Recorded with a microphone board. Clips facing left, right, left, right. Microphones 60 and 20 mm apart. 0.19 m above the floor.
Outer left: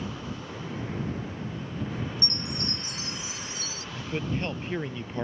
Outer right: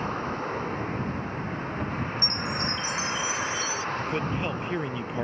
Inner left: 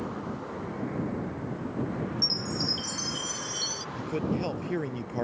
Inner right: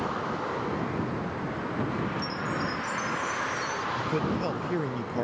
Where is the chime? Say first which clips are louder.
Outer right 5 dB, inner left 2 dB; 55° left (ahead or behind).